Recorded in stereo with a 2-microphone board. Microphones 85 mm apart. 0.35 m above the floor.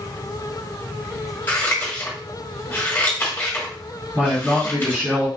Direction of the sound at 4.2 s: 30° right (ahead or behind).